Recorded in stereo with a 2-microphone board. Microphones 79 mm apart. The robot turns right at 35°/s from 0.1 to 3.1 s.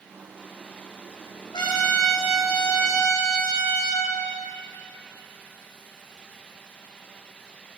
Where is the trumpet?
70° left, 2 m; by 4.1 s 125° left, 2 m.